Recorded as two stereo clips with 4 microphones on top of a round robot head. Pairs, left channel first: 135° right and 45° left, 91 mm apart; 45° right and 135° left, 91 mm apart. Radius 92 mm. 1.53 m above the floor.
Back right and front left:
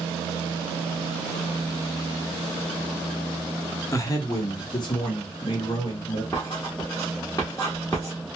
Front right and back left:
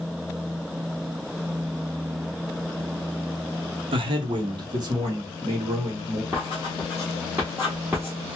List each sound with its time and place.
3.9 s a man speaking: 165° left, 0.8 m; by 6.2 s 165° right, 1.8 m
6.3 s writing: 170° right, 1.1 m